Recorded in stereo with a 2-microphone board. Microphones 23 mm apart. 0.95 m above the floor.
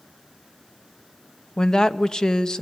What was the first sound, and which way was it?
A woman speaking, 30° left (ahead or behind).